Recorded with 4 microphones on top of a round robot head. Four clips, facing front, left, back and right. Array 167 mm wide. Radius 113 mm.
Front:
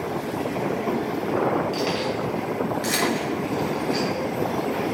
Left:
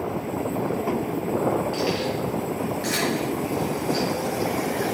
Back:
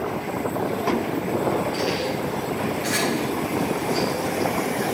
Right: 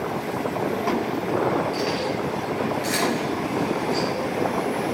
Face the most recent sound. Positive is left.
turn(degrees=-15)